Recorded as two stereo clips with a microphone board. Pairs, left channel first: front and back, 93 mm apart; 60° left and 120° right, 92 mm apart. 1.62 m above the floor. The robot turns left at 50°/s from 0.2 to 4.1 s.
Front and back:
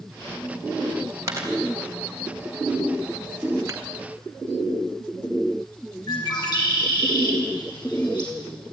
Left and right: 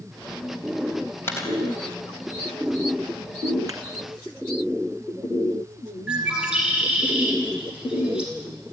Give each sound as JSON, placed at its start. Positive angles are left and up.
{"t": 1.3, "sound": "a dropped coin", "azimuth_deg": 125, "distance_m": 4.0}
{"t": 3.7, "sound": "a thud", "azimuth_deg": -135, "distance_m": 2.0}
{"t": 6.1, "sound": "a bird", "azimuth_deg": -40, "distance_m": 5.5}